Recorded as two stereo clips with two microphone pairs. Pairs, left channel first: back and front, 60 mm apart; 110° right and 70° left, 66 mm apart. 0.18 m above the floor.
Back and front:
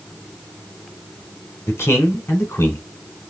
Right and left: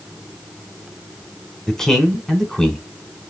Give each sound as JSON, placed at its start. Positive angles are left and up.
{"t": 1.7, "sound": "a man speaking", "azimuth_deg": 175, "distance_m": 1.4}